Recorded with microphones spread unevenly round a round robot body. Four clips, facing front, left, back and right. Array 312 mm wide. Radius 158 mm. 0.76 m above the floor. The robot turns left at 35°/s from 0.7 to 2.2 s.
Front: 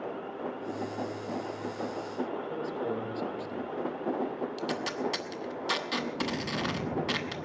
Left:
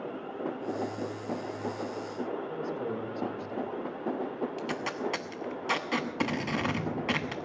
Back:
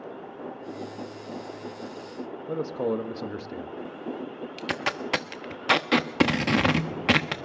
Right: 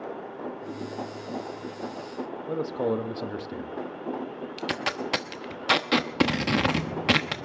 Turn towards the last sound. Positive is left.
turn(degrees=-150)